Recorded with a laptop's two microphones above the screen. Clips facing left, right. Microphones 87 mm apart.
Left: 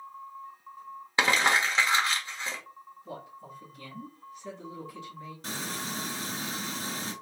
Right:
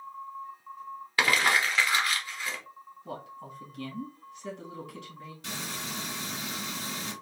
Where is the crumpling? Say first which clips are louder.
Left 1 dB; 25° left (ahead or behind), 0.9 m.